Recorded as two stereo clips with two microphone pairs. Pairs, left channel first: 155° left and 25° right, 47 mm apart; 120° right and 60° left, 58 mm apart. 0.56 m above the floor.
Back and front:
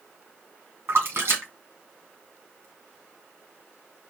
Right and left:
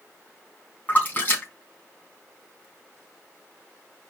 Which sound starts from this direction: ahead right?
A splash, at 0.9 s.